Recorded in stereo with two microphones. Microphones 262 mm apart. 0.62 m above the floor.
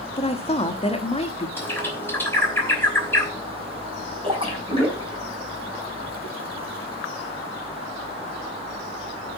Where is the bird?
10° left (ahead or behind), 3 m.